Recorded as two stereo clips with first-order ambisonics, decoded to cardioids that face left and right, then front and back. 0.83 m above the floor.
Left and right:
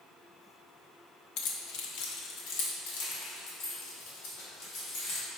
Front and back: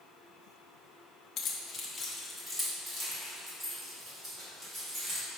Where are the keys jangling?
55° left, 0.8 m; by 5.2 s 115° left, 4 m.